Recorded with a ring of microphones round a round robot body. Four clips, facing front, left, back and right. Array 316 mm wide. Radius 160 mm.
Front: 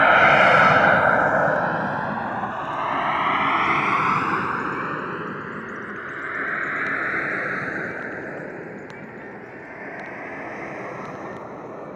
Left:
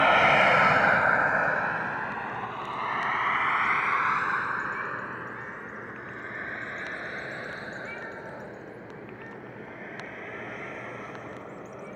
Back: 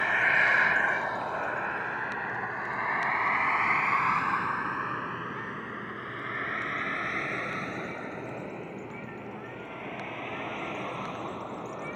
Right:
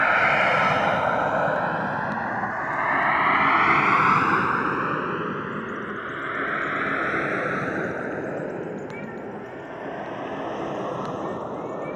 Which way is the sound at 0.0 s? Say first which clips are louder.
Even, front 12 dB; 10° left.